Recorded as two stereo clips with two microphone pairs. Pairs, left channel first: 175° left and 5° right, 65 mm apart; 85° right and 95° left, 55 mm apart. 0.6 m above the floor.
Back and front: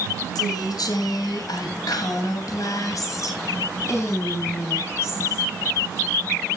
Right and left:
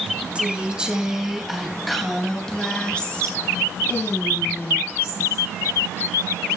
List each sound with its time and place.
0.3 s a woman speaking: 165° left, 3 m; by 5.5 s 130° right, 4 m